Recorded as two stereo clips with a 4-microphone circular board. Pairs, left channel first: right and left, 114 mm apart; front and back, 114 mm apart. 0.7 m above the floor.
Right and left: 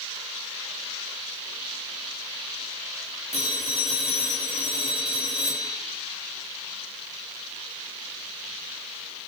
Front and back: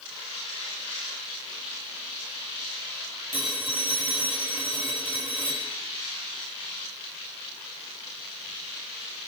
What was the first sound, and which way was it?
A phone ringing, 105° left.